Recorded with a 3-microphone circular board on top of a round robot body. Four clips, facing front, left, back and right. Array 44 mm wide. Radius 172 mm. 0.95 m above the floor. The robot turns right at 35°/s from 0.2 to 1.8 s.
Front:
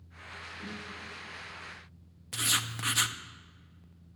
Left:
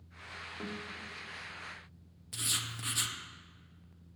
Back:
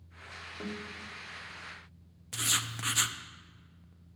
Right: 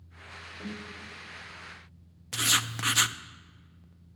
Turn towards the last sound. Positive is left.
turn(degrees=-85)